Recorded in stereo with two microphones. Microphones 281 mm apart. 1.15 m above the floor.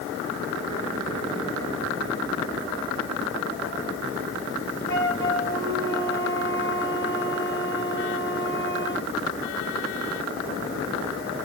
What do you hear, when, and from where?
4.9 s a flute: 40° left (ahead or behind), 4 m